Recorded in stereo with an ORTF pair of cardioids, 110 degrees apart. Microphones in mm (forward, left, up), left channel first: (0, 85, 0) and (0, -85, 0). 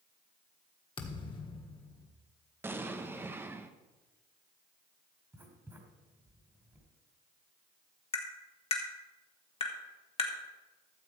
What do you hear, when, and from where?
1.0 s a thud: 30° left, 1.5 m
2.6 s an explosion: 10° right, 0.7 m
5.3 s writing: 15° right, 2 m
8.1 s tapping: 35° left, 1.8 m